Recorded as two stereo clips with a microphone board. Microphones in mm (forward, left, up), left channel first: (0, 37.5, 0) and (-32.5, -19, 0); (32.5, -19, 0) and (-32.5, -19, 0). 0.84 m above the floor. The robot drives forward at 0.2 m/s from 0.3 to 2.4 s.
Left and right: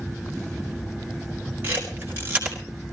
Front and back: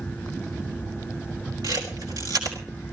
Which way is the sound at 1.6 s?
Straight behind.